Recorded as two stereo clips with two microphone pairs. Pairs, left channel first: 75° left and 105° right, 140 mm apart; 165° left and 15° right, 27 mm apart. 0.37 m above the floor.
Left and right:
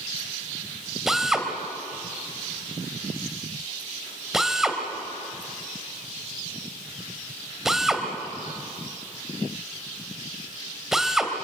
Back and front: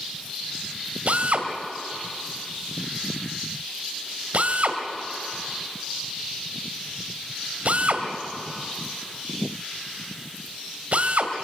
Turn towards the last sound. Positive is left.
turn(degrees=-15)